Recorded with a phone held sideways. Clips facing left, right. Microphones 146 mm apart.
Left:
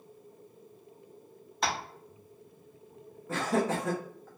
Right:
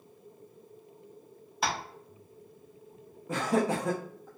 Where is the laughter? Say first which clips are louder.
Right 1 dB; 15° right (ahead or behind), 0.7 m.